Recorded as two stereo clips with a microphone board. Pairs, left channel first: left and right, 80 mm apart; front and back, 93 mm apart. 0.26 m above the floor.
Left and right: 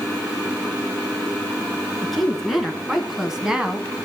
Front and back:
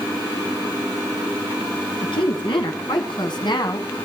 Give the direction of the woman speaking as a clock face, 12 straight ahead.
12 o'clock.